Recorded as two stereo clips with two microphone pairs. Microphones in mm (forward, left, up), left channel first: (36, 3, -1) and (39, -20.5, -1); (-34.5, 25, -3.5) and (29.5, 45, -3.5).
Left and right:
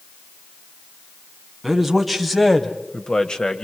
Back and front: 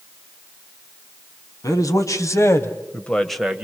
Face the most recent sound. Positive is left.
turn(degrees=85)